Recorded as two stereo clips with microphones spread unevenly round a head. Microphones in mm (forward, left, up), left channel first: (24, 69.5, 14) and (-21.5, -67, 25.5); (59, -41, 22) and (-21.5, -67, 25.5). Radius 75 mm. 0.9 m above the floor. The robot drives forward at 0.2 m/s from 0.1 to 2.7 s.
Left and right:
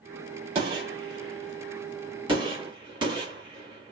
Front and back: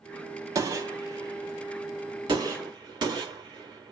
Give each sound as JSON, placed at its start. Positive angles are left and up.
{"t": 0.6, "sound": "a gunshot", "azimuth_deg": -145, "distance_m": 0.9}